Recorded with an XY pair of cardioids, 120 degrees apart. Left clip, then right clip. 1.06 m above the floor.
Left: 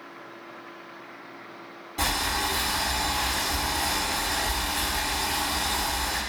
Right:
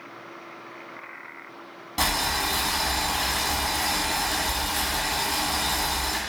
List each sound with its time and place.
2.0 s boiling: 65° right, 1.2 m